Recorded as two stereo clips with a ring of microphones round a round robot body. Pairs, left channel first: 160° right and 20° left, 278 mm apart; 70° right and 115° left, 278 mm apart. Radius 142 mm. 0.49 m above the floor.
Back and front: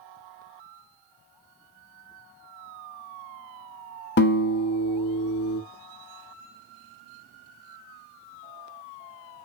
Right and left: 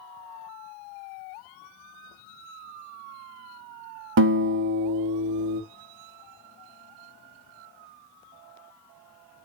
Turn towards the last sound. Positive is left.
turn(degrees=155)